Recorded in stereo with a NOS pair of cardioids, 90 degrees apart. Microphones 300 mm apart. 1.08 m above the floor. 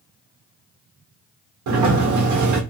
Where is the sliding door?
70° right, 1.4 m.